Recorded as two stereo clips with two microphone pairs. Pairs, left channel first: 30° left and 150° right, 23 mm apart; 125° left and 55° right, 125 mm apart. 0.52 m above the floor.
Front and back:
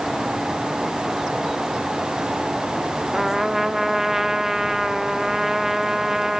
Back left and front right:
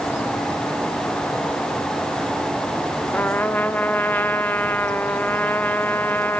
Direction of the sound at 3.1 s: Straight behind.